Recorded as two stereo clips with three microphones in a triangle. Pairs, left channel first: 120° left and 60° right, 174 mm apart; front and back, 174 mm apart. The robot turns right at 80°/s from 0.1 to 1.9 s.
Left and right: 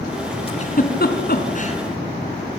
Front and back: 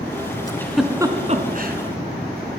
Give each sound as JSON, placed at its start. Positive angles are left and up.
{"t": 0.5, "sound": "a giggle", "azimuth_deg": 65, "distance_m": 3.0}